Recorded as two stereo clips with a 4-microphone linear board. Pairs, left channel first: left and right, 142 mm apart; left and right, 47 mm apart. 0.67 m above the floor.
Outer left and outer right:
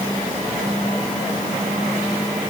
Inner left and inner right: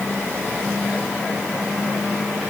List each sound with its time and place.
Only background noise.